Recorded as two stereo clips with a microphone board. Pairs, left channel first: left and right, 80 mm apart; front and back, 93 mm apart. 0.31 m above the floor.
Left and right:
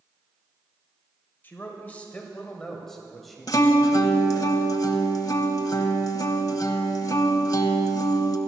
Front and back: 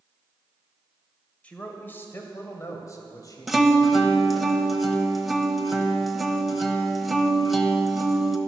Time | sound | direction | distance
1.4 | a man speaking | 60° left | 1.6 m
3.5 | a guitar | 90° left | 1.0 m